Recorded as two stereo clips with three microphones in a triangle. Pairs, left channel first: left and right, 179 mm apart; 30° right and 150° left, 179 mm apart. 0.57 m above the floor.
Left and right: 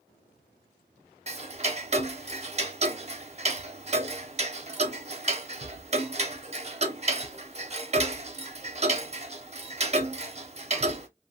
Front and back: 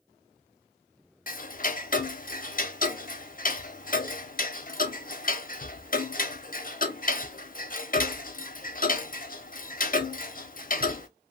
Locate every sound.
1.3 s ticking: 45° right, 0.6 m